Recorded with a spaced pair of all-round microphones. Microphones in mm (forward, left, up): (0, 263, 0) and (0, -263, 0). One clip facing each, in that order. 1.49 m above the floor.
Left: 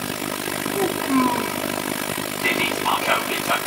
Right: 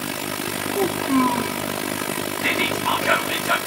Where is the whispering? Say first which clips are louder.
Left 2 dB; 40° right (ahead or behind), 1.1 m.